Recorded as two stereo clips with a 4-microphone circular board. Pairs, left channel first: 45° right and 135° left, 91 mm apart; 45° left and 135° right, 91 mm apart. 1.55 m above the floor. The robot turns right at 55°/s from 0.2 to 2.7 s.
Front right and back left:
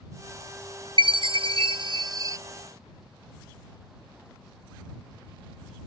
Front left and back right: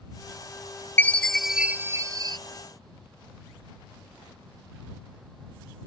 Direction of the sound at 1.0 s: 110° left.